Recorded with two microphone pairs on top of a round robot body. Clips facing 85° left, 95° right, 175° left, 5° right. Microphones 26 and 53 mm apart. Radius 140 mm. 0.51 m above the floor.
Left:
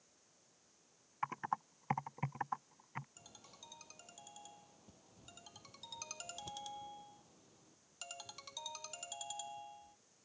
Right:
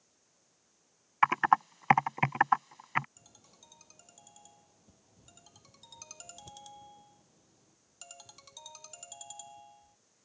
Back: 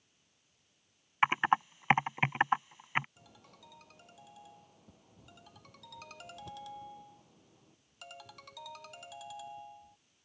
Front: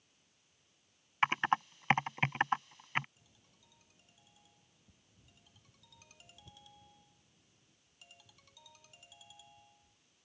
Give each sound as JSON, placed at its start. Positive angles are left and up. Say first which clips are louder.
{"t": 1.2, "sound": "typing on a keyboard", "louder": "right 15 dB, back 3 dB", "azimuth_deg": -110}
{"t": 3.2, "sound": "a ringtone", "louder": "left 2 dB, back 11 dB", "azimuth_deg": 160}